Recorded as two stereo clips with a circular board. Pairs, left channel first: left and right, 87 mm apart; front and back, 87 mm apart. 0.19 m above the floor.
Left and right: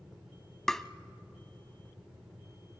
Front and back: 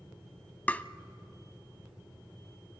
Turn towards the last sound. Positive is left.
turn(degrees=15)